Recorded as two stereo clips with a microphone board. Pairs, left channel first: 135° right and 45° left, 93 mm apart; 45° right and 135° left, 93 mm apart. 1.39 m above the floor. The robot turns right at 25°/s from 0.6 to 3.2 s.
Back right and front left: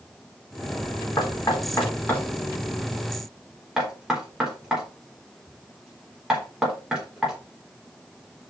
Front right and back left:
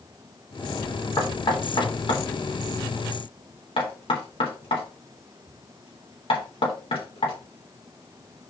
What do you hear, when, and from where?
1.2 s knocking: 90° right, 3.5 m; by 8.5 s 40° right, 3.5 m